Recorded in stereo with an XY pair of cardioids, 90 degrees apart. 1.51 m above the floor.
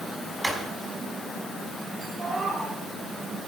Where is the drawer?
20° right, 4.5 m.